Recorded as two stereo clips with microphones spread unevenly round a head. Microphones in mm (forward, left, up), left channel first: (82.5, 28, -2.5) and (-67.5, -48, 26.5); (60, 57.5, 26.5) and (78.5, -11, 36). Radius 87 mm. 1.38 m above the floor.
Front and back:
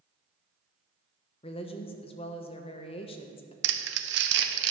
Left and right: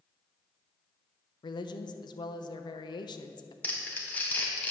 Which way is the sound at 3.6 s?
175° left.